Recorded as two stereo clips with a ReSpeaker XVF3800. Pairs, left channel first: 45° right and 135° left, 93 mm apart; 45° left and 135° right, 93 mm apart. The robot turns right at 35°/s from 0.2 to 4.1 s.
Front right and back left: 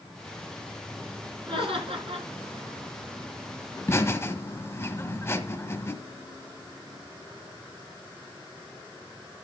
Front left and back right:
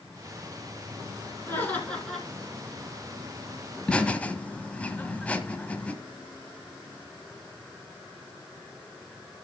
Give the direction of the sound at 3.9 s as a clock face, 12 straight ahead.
1 o'clock.